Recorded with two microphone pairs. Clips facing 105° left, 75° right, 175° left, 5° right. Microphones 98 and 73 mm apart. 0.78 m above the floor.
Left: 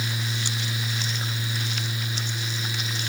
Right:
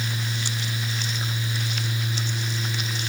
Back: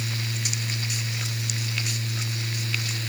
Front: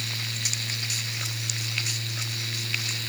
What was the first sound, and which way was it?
Only background noise.